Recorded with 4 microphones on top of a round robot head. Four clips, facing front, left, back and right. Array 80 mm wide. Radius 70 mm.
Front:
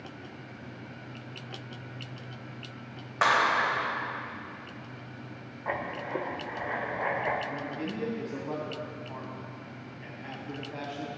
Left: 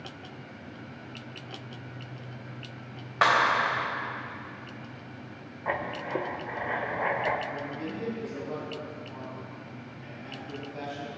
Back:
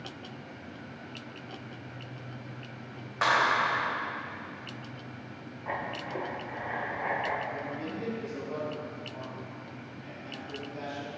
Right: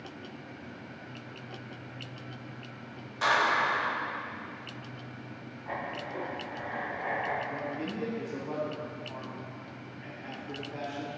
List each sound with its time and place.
3.2 s a clap: 75° left, 1.9 m
5.7 s writing: 70° left, 1.0 m
7.5 s a man speaking: 30° right, 3 m